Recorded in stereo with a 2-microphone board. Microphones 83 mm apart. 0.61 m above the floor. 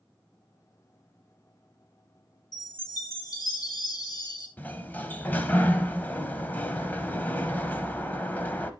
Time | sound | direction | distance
2.5 | a chime | 55° left (ahead or behind) | 3.5 m
4.6 | a sliding door | 25° left (ahead or behind) | 1.0 m